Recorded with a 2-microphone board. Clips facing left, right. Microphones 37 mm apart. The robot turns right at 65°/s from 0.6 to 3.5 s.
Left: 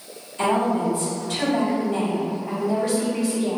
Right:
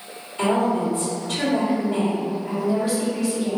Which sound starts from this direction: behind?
A woman speaking, at 0.4 s.